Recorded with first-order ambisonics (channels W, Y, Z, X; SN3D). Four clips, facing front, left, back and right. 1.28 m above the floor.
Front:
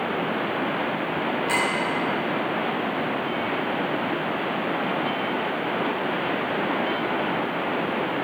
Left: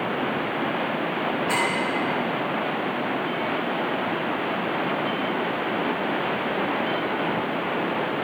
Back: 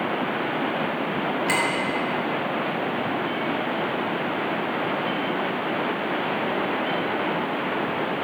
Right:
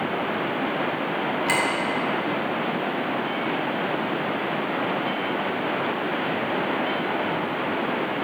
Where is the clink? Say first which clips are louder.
Right 2 dB, back 1 dB; 120° right, 3 m.